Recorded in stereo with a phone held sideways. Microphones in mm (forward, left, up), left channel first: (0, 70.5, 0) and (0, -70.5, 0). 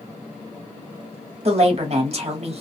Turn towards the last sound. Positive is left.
turn(degrees=-45)  # may be behind; listen again after turning